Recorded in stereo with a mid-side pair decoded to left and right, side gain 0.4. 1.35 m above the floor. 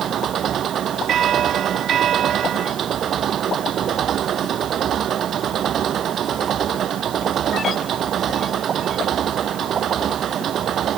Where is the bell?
65° right.